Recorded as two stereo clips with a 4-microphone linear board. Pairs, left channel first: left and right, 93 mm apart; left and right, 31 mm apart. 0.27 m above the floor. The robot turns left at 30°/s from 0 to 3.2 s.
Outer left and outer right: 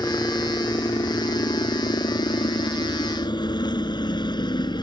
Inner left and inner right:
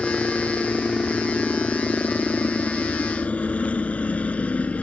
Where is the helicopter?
155° left; by 4.8 s 55° left.